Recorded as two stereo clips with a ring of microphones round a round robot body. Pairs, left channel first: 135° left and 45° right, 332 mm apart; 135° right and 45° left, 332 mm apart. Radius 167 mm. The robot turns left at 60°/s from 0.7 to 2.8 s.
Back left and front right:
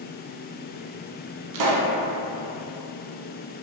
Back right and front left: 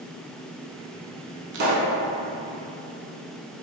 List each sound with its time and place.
1.5 s a pop: 15° right, 0.7 m; by 1.9 s 35° right, 0.7 m